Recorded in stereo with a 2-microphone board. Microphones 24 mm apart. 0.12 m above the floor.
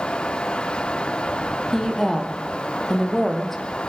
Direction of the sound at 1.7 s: 10° left (ahead or behind).